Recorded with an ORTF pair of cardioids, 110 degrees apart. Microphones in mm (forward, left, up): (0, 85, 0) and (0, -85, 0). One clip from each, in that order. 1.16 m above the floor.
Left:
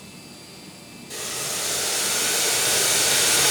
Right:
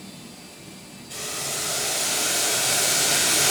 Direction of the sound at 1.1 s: 45° left.